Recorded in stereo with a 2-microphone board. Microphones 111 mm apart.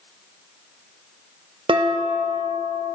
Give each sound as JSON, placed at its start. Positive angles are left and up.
{"t": 1.7, "sound": "dishes clattering", "side_deg": -50, "distance_m": 0.5}